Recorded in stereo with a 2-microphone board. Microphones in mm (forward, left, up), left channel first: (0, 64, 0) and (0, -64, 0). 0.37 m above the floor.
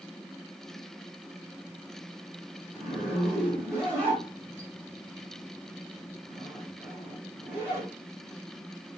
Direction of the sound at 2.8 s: 20° right (ahead or behind).